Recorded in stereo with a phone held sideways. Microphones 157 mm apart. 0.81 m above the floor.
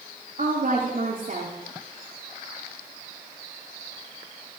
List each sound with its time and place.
0.4 s a woman speaking: 60° right (ahead or behind), 1.7 m